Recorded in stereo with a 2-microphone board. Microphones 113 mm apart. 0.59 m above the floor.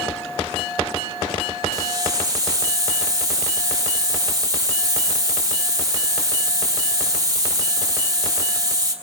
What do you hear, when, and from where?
1.7 s a hiss: 30° right (ahead or behind), 2.5 m